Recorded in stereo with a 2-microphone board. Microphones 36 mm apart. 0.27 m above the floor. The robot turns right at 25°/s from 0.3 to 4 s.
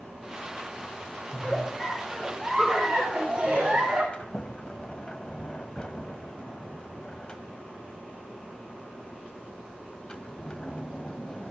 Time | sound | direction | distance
1.3 | a giggle | 160° left | 5.5 m
4.1 | a sliding door | 25° left (ahead or behind) | 0.8 m